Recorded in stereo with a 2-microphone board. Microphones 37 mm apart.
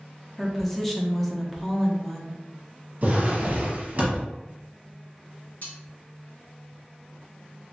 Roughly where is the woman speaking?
Centre.